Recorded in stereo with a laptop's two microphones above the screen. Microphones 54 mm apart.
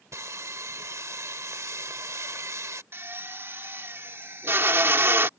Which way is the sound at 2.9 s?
50° right (ahead or behind).